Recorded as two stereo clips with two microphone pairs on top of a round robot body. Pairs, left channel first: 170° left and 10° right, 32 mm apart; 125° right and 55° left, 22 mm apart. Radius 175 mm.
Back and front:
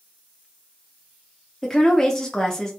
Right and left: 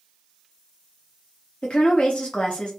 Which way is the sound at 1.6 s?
125° right.